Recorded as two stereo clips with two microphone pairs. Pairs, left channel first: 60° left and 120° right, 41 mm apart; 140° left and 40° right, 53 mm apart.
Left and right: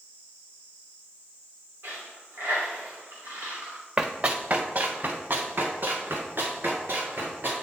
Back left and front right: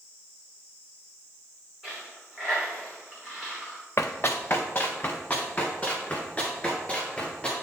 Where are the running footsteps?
Straight behind, 0.7 m; by 7.5 s 150° right, 4 m.